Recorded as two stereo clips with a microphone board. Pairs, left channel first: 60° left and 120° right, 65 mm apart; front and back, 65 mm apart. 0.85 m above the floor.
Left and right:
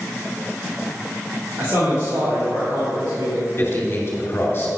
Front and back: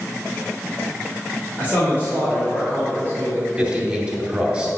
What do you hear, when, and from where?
1.6 s a man speaking: 115° right, 3 m
3.6 s a man speaking: 110° left, 2 m